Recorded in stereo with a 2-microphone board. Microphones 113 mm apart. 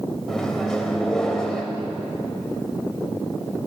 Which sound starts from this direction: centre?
A microwave, at 0.3 s.